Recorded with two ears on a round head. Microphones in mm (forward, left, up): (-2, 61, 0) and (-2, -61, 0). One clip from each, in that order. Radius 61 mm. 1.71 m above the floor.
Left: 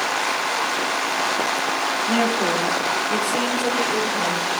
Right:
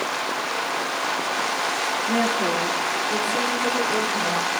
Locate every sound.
2.1 s a woman speaking: 35° left (ahead or behind), 3.5 m; by 4.4 s 20° left (ahead or behind), 5.5 m